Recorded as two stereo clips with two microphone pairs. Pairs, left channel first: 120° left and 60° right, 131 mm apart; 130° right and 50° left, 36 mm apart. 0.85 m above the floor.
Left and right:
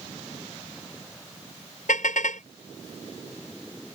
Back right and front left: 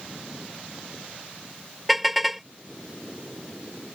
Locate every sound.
1.9 s a car horn: 135° left